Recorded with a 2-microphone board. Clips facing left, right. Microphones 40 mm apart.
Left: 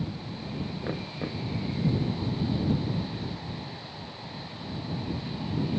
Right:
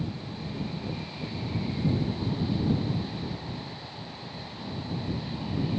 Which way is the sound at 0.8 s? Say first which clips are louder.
Left 2 dB; 65° left (ahead or behind).